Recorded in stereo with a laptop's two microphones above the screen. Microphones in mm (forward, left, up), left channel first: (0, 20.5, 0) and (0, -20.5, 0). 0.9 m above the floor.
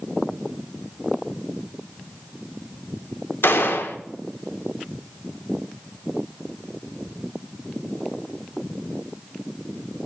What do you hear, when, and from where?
3.4 s a gunshot: 70° left (ahead or behind), 0.9 m